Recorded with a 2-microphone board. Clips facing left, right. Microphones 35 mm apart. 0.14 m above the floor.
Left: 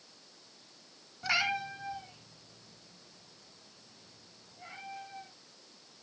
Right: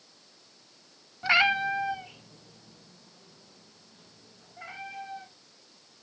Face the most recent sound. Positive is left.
turn(degrees=-80)